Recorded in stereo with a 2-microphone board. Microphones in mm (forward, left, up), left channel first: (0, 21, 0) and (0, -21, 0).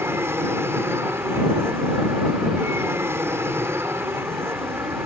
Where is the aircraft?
70° right (ahead or behind).